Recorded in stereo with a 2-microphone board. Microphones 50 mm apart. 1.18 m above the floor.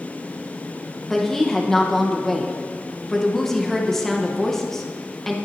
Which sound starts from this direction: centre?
A woman speaking, at 1.1 s.